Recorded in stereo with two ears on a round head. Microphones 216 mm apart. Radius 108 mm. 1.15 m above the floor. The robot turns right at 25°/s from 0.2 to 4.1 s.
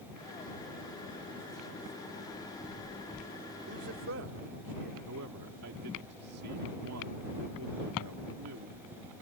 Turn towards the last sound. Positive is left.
turn(degrees=-70)  # may be behind; listen again after turning